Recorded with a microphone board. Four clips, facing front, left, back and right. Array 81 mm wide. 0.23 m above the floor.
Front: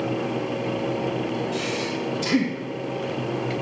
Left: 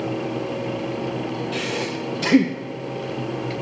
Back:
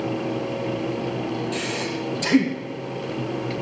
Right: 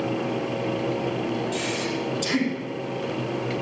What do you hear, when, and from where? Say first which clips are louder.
1.5 s breathing: left 1 dB, even; 100° left, 1.2 m